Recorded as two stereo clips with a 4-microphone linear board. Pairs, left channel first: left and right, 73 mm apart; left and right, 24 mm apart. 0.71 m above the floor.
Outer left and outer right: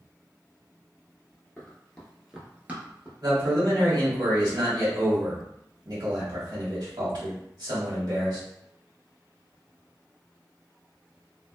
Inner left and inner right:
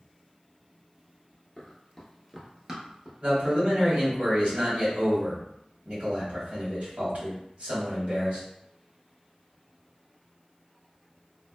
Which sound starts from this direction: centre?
Running footsteps, at 1.6 s.